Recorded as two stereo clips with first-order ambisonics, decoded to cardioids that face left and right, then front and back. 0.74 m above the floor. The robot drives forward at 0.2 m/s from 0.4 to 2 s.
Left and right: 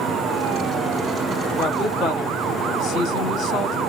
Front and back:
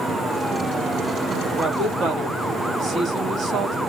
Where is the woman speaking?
125° left, 1.1 m; by 3.8 s 130° left, 1.1 m.